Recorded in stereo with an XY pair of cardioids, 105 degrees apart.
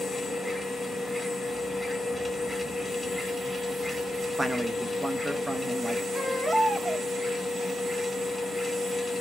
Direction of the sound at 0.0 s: 5° right.